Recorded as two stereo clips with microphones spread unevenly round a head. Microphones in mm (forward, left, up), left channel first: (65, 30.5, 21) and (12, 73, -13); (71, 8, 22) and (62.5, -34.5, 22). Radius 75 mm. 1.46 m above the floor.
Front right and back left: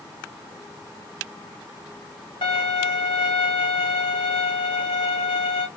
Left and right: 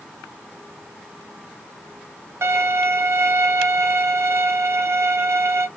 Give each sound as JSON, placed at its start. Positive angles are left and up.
{"t": 2.4, "sound": "a violin", "azimuth_deg": -90, "distance_m": 0.8}